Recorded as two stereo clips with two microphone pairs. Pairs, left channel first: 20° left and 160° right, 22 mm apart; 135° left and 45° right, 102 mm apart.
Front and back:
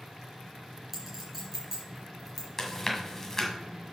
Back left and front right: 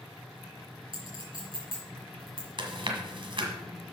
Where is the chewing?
45° right, 1.6 m.